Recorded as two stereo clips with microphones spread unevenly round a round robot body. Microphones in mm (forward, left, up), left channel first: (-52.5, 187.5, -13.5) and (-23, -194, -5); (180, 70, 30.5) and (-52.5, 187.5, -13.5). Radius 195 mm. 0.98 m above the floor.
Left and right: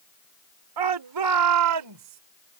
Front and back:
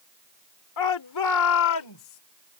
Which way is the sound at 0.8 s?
45° right.